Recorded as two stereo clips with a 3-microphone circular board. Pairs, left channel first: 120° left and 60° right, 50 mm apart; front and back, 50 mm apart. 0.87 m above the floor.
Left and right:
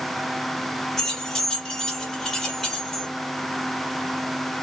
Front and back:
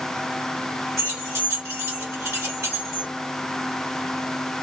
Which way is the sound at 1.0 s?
160° right.